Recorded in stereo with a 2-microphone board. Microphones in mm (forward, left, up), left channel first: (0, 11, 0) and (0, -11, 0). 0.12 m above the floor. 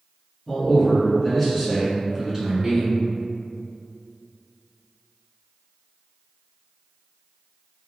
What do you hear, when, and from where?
0.5 s a man speaking: 25° left (ahead or behind), 1.7 m; by 3.0 s 35° right (ahead or behind), 1.8 m